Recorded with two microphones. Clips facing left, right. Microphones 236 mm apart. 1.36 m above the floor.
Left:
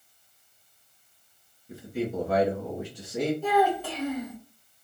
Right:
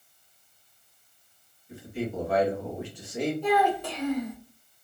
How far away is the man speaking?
About 1.8 m.